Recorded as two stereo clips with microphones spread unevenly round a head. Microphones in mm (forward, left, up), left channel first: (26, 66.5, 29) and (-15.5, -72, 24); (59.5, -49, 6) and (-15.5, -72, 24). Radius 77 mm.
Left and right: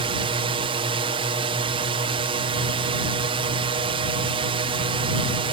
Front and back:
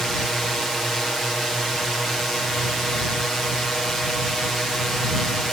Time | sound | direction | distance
0.0 | a drone | 65° right | ?